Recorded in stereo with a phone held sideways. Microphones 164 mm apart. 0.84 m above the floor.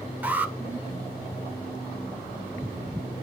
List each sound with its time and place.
0.2 s an alarm: 10° right (ahead or behind), 1.8 m